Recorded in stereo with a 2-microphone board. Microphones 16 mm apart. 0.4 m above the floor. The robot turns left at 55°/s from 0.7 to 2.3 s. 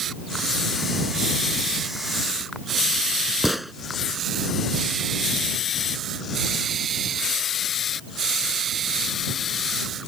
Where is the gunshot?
5° right (ahead or behind).